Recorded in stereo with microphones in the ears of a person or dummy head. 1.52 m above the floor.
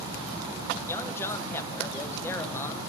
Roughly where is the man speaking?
Centre.